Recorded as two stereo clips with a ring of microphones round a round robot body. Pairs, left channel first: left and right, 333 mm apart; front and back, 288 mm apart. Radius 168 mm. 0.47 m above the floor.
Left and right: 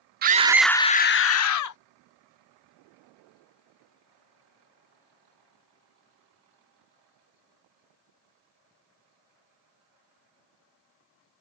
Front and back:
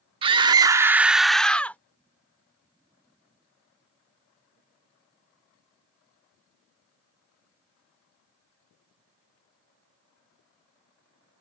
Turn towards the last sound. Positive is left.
turn(degrees=85)